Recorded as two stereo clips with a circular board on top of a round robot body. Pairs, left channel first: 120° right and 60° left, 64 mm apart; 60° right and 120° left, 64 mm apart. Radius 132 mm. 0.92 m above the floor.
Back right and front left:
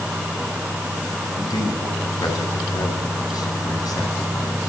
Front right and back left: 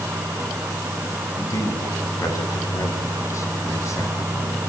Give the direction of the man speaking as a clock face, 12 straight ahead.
3 o'clock.